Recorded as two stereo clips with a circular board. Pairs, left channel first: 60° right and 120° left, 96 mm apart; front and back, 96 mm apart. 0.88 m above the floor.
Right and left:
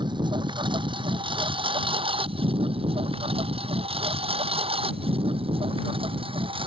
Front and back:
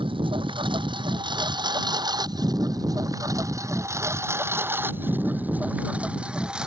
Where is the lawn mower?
155° left; by 6.7 s 100° left.